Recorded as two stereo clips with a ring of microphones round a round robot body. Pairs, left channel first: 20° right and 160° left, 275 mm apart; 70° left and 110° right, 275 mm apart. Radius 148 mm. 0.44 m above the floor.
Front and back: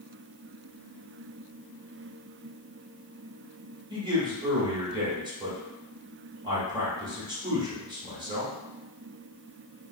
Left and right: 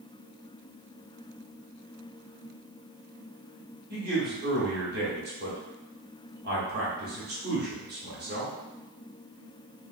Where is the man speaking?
135° right, 1.3 m.